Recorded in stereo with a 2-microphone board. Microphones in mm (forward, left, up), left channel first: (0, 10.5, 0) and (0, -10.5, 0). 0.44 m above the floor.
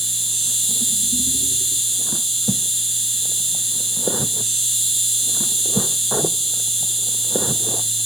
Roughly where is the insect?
Centre.